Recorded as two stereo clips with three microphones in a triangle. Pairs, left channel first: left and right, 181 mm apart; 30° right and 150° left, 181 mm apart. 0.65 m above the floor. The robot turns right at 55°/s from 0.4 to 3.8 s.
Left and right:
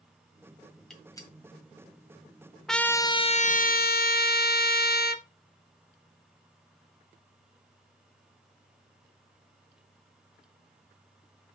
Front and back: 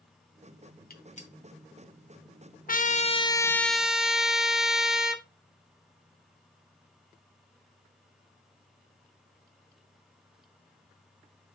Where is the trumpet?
Straight ahead, 0.9 m; by 5.2 s 65° left, 0.9 m.